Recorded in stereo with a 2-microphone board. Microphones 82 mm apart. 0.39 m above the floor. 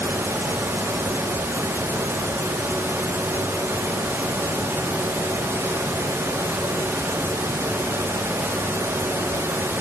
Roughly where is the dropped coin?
I don't hear a dropped coin.